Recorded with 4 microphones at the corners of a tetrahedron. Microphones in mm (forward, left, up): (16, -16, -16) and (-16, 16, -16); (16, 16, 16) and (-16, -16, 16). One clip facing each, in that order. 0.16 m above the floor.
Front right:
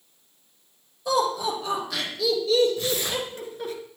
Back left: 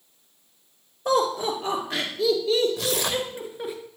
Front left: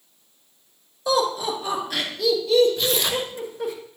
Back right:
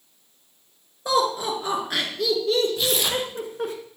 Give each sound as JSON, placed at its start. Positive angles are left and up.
{"t": 1.1, "sound": "laughter", "azimuth_deg": 175, "distance_m": 3.0}
{"t": 2.8, "sound": "tearing paper", "azimuth_deg": 145, "distance_m": 1.3}